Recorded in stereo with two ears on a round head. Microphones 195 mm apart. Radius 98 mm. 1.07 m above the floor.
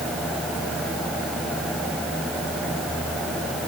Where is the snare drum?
I don't hear a snare drum.